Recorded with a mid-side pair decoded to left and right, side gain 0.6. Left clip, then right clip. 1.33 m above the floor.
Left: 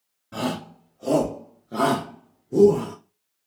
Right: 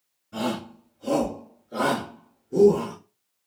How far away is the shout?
About 1.8 m.